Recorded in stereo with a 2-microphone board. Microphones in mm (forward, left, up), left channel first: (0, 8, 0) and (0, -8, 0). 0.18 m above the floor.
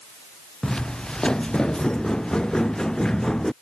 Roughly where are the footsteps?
Left.